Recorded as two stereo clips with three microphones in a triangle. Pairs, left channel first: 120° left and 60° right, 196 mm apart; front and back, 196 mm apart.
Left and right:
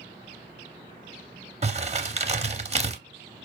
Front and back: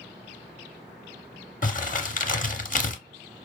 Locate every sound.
1.6 s crumpling: 20° right, 0.6 m